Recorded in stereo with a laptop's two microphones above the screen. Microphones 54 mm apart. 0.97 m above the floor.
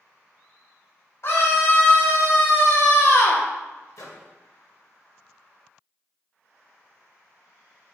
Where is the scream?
55° left (ahead or behind), 3 m.